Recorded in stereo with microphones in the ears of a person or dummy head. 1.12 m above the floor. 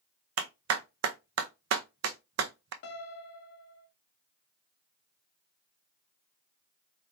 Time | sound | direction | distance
0.4 | a clap | 65° right (ahead or behind) | 0.7 m
2.8 | a piano | 50° left (ahead or behind) | 0.7 m